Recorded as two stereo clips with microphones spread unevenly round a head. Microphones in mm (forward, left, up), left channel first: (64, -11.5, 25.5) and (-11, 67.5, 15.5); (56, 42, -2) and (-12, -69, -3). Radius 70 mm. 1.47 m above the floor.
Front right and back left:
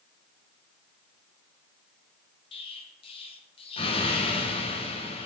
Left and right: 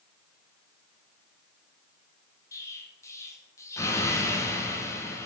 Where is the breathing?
I don't hear breathing.